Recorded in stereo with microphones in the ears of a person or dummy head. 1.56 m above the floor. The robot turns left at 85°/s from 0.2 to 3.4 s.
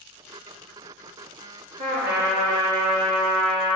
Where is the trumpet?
50° right, 1.7 m; by 3.8 s 170° left, 1.7 m.